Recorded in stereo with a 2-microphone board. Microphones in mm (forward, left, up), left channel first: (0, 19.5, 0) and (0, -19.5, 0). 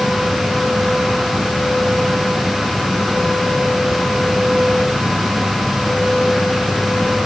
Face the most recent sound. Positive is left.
No sound to turn to.